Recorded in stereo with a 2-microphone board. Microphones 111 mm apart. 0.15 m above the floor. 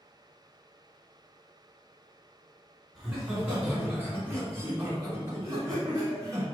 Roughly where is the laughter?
Centre.